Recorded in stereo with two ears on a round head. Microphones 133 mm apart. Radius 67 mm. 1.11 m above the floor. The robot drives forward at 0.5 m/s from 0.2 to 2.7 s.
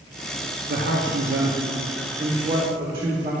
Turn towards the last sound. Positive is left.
turn(degrees=-35)  # may be behind; listen again after turning